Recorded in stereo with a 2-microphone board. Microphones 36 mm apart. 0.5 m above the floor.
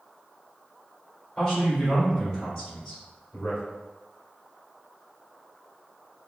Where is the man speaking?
25° left (ahead or behind), 2.0 m.